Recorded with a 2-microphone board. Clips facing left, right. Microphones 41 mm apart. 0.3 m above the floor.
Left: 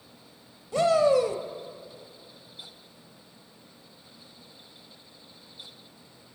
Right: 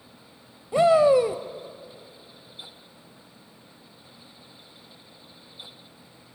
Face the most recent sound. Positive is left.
turn(degrees=-20)  # may be behind; listen again after turning